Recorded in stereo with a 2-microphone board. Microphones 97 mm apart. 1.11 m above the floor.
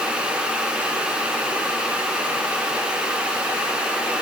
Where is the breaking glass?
No breaking glass in this recording.